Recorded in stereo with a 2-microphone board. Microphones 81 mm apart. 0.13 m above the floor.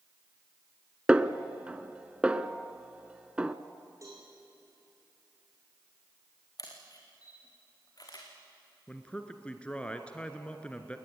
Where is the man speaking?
15° left (ahead or behind), 1.7 m.